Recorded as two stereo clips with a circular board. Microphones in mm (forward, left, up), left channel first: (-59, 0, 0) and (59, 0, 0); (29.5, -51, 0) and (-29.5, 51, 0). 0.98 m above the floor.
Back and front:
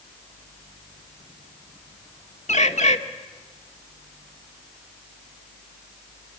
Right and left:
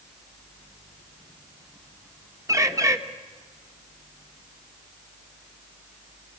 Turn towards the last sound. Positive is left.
turn(degrees=-175)